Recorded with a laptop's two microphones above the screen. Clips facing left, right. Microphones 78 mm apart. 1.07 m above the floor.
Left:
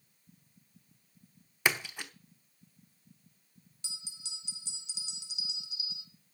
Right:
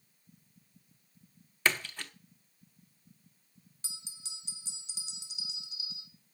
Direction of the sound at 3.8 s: 35° right (ahead or behind).